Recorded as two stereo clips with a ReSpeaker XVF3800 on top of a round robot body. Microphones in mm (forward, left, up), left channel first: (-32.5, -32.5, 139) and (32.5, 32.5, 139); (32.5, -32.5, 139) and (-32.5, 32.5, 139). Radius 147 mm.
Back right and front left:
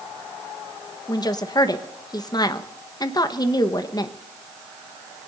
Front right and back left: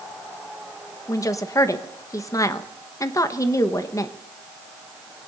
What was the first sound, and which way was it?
A woman speaking, 95° right.